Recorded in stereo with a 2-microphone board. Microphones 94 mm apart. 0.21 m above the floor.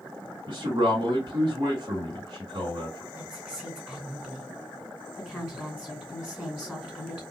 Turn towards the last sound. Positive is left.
turn(degrees=0)  # may be behind; listen again after turning